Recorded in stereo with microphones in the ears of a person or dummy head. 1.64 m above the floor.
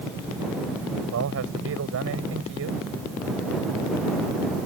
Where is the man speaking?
60° right (ahead or behind).